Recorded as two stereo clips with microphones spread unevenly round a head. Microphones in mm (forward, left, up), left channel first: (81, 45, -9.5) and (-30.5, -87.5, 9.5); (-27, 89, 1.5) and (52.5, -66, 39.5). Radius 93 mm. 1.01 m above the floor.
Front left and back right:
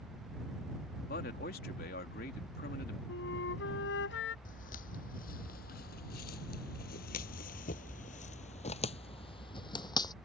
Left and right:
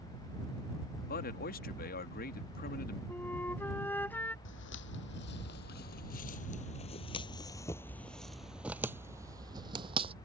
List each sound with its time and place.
1.1 s a man speaking: 90° left
3.1 s a flute: 35° left
4.5 s footsteps: 100° left; by 10.1 s 20° right